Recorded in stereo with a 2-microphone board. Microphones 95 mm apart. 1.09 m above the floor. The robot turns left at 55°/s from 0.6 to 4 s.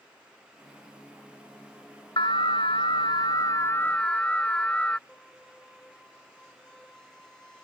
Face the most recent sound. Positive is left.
turn(degrees=10)  # may be behind; listen again after turning